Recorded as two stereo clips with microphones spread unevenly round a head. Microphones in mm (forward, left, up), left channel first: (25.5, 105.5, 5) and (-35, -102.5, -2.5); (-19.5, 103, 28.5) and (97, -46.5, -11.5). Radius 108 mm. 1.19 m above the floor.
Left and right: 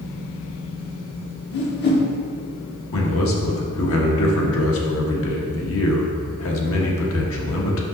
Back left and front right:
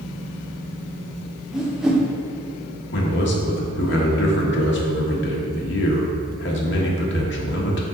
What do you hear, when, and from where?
1.5 s a whoosh: 45° left, 1.1 m
2.9 s a man speaking: 100° left, 1.4 m